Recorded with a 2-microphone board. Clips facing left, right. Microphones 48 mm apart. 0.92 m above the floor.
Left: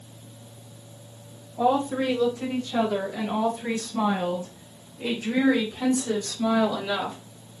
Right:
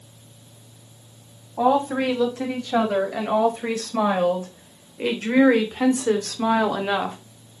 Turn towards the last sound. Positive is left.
turn(degrees=-40)  # may be behind; listen again after turning